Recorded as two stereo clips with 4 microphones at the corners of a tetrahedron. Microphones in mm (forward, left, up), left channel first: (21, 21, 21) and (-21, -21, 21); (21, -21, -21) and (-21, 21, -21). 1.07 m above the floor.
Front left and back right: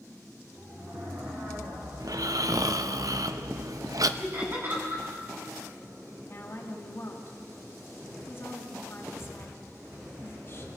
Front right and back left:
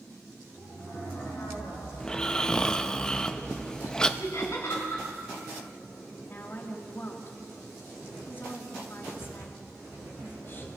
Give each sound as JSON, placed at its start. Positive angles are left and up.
{"t": 2.0, "sound": "snoring", "azimuth_deg": -120, "distance_m": 0.7}
{"t": 4.2, "sound": "laughter", "azimuth_deg": -85, "distance_m": 9.0}
{"t": 6.2, "sound": "a woman speaking", "azimuth_deg": 0, "distance_m": 3.0}